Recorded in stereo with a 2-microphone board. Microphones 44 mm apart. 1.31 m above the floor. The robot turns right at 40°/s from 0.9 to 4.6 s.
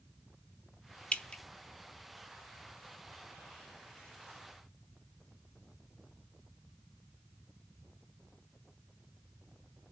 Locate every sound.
1.1 s dripping: 25° left (ahead or behind), 0.5 m